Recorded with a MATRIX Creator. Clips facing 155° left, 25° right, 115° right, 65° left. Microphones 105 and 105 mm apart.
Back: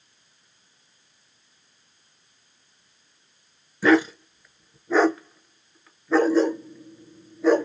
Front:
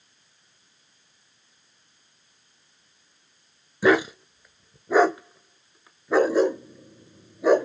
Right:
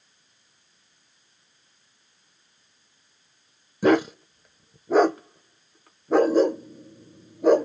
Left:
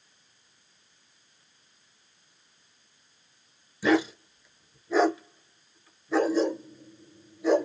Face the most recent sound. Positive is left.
turn(degrees=-95)